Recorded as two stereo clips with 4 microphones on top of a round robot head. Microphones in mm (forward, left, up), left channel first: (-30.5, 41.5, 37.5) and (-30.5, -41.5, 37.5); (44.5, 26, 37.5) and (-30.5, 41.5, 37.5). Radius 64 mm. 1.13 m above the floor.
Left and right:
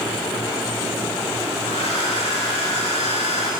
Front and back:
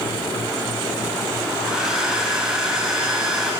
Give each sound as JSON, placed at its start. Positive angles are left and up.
{"t": 1.6, "sound": "a hair dryer", "azimuth_deg": 90, "distance_m": 9.5}